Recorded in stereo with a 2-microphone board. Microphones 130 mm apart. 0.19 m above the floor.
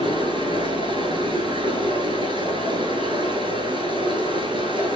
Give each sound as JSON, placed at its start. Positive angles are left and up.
{"t": 0.0, "sound": "running water", "side_deg": -40, "distance_m": 1.5}